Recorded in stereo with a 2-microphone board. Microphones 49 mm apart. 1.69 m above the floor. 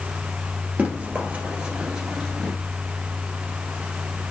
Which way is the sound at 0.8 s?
30° right (ahead or behind).